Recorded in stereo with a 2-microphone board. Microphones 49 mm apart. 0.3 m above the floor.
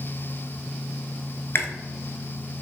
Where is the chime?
No chime in this recording.